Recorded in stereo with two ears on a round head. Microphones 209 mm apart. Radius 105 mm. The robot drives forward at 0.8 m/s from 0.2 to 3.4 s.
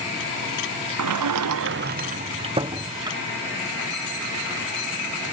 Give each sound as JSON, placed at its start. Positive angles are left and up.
{"t": 1.0, "sound": "a sliding door", "side_deg": -65}